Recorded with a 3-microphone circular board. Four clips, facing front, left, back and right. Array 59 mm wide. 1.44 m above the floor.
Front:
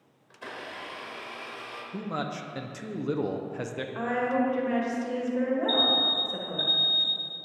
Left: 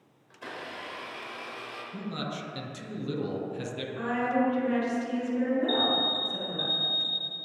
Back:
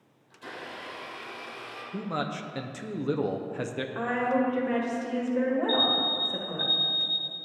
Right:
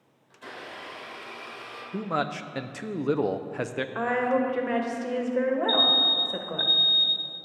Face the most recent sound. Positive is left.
turn(degrees=-70)